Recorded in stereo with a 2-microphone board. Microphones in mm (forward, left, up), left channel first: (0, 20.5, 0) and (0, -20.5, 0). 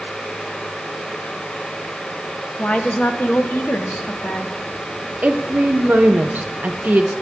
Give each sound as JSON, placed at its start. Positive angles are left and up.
{"t": 2.6, "sound": "a woman speaking", "side_deg": 30, "distance_m": 0.8}
{"t": 5.2, "sound": "a woman speaking", "side_deg": -45, "distance_m": 0.8}